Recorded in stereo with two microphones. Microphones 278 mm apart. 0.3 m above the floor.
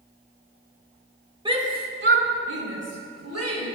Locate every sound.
1.4 s a shout: 15° right (ahead or behind), 0.9 m; by 3.7 s 65° right (ahead or behind), 2.5 m